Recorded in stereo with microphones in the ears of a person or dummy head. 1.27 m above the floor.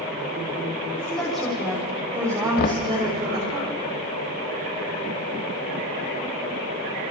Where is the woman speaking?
5° left (ahead or behind), 4 m; by 3.6 s 35° right (ahead or behind), 5 m.